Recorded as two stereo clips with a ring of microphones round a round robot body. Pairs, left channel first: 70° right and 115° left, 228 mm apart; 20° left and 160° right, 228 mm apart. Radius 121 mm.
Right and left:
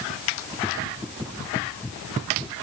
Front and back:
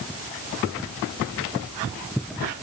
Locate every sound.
Only background noise.